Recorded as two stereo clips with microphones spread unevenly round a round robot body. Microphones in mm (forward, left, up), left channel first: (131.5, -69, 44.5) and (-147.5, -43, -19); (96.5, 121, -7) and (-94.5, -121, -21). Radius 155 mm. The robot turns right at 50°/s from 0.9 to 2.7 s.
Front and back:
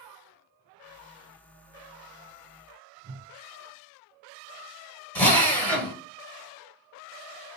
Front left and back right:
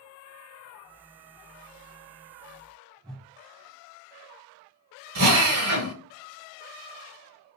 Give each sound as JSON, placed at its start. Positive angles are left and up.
{"t": 3.0, "sound": "a whoosh", "azimuth_deg": 140, "distance_m": 0.6}
{"t": 5.2, "sound": "a drill", "azimuth_deg": -95, "distance_m": 1.2}